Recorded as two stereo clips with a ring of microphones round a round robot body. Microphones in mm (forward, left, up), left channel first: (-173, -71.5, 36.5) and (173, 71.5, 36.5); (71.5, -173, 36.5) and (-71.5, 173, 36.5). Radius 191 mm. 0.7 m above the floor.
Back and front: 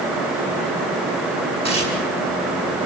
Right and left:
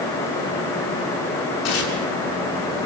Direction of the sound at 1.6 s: 80° right.